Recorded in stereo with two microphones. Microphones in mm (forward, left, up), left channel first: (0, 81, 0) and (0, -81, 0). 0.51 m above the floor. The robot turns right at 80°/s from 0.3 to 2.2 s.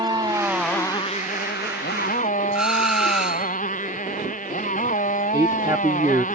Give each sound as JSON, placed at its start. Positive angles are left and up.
{"t": 0.0, "sound": "a motorcycle", "azimuth_deg": -25}
{"t": 2.5, "sound": "a doorbell", "side_deg": -5}
{"t": 5.3, "sound": "a man speaking", "side_deg": -20}